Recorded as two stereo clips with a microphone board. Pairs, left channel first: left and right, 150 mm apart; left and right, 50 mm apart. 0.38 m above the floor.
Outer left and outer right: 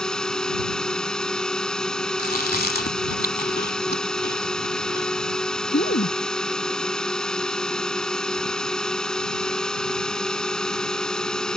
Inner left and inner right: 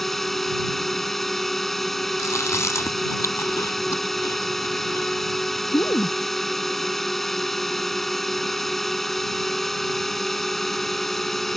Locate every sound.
0.0 s a drone: 5° left (ahead or behind)
2.2 s chewing: 90° left